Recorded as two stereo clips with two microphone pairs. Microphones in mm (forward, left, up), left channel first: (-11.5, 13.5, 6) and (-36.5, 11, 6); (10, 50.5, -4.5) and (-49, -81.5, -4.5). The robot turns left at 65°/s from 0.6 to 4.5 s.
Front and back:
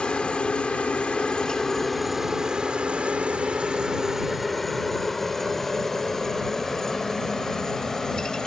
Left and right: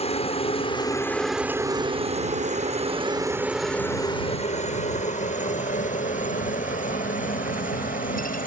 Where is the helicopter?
35° left; by 8.5 s 70° left.